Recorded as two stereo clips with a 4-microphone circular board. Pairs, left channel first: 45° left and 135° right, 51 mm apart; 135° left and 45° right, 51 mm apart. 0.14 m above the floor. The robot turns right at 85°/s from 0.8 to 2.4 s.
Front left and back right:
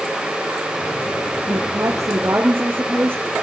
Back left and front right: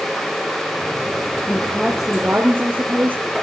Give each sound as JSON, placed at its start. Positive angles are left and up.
{"t": 1.5, "sound": "a woman speaking", "azimuth_deg": -165, "distance_m": 3.5}